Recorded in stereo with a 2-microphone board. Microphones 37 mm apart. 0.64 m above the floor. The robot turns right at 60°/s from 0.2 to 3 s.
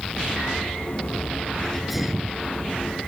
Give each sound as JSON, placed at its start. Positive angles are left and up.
{"t": 1.6, "sound": "a sneeze", "azimuth_deg": 165}